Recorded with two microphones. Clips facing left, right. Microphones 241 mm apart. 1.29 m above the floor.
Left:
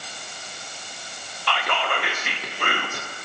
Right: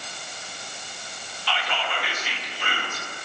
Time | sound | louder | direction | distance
1.5 | whispering | left 4 dB | 60° left (ahead or behind) | 0.6 m